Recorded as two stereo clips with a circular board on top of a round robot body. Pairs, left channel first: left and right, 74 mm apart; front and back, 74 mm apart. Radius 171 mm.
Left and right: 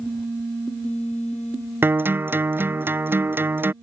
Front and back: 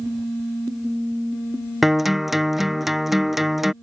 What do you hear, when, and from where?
1.8 s a guitar: 95° right